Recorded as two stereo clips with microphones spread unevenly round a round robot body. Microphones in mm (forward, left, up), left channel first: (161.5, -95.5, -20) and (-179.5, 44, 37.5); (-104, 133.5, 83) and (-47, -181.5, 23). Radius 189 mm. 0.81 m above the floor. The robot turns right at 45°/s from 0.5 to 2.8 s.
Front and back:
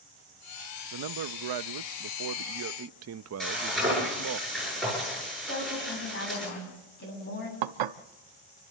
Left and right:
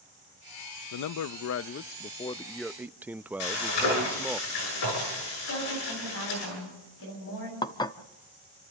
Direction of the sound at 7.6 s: Straight behind.